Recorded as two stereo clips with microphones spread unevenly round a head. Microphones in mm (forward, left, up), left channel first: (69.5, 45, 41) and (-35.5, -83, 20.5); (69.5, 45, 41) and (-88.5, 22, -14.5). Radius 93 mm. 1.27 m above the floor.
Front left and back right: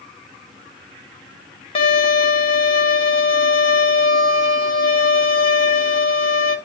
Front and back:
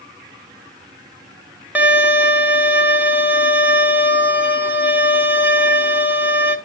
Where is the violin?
90° left, 1.0 m.